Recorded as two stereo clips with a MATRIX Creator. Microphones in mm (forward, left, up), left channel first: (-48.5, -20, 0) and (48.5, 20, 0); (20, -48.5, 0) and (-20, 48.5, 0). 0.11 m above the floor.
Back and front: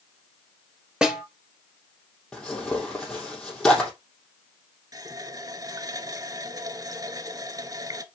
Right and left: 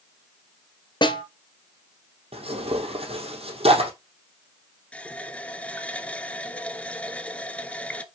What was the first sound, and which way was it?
A snare drum, 55° right.